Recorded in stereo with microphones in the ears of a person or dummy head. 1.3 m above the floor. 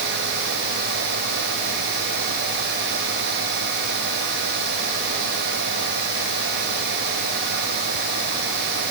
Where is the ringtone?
No ringtone in this recording.